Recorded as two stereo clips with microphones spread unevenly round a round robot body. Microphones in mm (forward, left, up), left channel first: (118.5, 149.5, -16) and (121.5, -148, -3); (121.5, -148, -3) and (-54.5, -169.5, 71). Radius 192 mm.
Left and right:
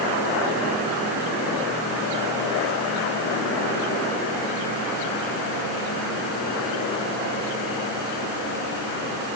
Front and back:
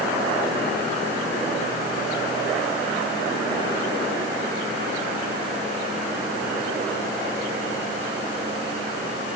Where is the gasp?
No gasp in this recording.